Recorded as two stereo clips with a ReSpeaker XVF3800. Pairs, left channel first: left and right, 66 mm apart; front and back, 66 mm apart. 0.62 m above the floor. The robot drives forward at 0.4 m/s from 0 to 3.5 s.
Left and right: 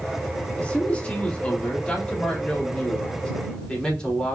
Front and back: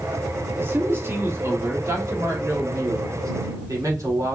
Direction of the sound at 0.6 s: 145° left.